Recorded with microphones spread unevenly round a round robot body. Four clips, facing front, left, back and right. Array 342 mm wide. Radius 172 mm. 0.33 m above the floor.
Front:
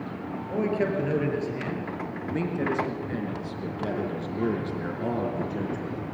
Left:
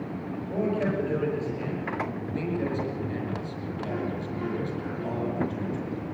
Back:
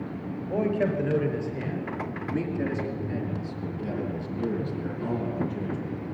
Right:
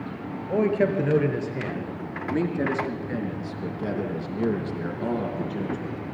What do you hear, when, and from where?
0.4 s a man speaking: 85° right, 6 m; by 6.0 s 25° right, 5 m